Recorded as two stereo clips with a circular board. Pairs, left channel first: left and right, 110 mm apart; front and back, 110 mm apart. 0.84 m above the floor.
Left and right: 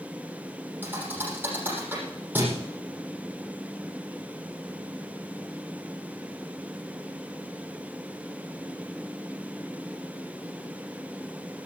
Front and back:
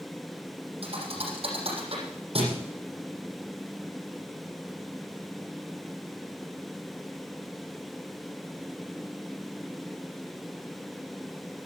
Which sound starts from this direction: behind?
A thud, at 0.8 s.